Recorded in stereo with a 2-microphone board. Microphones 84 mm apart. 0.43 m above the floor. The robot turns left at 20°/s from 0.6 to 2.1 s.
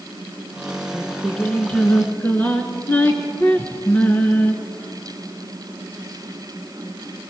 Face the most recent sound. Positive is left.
turn(degrees=20)  # may be behind; listen again after turning